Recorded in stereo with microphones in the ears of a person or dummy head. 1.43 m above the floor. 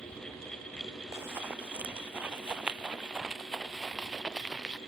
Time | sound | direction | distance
1.1 | running footsteps | 15° right (ahead or behind) | ?